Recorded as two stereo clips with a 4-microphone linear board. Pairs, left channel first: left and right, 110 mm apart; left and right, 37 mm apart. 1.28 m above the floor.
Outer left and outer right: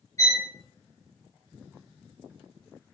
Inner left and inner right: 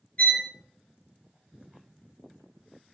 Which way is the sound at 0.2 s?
30° left (ahead or behind).